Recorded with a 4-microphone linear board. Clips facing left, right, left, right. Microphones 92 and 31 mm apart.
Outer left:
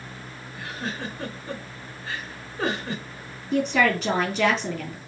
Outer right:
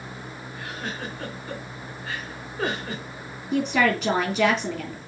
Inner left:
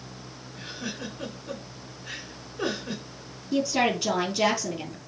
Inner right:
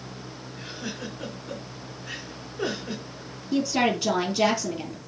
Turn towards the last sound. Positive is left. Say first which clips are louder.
# even, inner right 1 dB
turn(degrees=0)  # may be behind; listen again after turning